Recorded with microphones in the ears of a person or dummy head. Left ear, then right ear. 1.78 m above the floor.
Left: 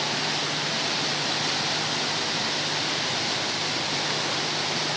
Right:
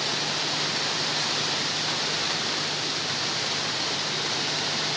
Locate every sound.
Only background noise.